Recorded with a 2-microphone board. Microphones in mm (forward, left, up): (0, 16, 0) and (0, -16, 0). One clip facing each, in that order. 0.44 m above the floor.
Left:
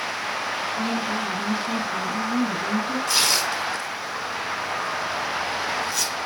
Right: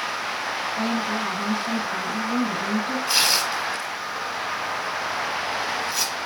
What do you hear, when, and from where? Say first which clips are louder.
0.8 s a woman speaking: right 2 dB; 60° right (ahead or behind), 3.5 m
3.1 s tearing paper: right 1 dB; 20° right (ahead or behind), 3 m